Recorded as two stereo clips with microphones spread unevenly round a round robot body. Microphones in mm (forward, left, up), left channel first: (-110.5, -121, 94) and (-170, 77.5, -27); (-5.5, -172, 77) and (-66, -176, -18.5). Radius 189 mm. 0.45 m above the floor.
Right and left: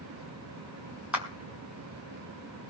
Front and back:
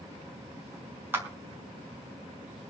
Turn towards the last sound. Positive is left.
turn(degrees=180)